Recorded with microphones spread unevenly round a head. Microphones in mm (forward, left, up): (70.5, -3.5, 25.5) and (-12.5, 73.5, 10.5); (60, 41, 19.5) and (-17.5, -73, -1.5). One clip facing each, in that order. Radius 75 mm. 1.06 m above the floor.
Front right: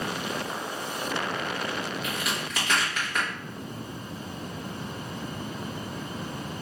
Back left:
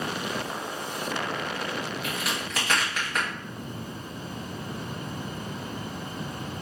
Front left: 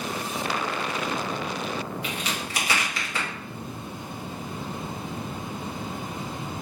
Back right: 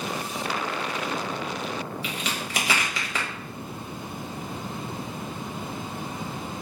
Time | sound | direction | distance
2.0 | a crack | 135° right | 1.5 m